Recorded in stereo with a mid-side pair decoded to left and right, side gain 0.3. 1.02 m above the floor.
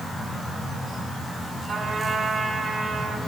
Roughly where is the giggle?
I don't hear a giggle.